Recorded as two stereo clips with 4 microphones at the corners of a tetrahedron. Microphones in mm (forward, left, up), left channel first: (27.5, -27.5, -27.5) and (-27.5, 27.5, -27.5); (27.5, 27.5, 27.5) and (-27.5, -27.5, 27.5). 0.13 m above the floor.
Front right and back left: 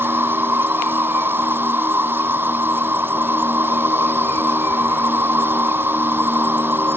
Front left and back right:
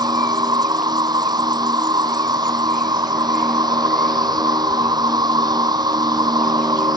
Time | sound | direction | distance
0.0 | an insect | 160° right | ?